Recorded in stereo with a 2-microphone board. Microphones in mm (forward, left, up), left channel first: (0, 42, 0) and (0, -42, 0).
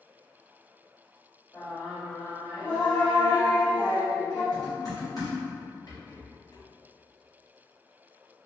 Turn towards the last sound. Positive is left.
turn(degrees=55)  # may be behind; listen again after turning